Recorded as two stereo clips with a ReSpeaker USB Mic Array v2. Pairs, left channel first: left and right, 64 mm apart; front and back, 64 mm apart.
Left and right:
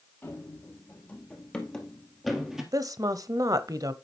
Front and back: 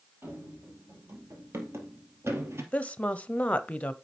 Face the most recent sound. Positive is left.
turn(degrees=-70)